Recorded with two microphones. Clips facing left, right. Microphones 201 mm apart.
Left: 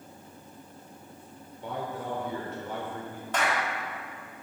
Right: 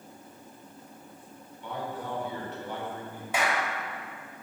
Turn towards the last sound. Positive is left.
turn(degrees=-10)  # may be behind; listen again after turning